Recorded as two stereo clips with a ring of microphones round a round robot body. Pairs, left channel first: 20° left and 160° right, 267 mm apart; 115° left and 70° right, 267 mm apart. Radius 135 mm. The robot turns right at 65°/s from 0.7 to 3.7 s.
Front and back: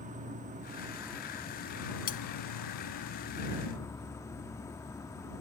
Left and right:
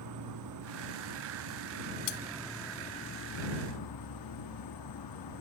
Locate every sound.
0.0 s an insect: 95° right; by 5.4 s 100° left
2.1 s cutlery clinking: 85° left; by 2.2 s 90° left